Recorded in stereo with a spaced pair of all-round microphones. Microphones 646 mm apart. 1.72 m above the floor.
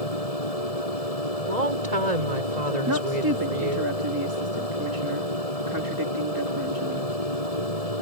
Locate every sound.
0.0 s a machine running: 65° left (ahead or behind)
1.5 s a woman speaking: 85° right
2.9 s a woman speaking: 30° right (ahead or behind)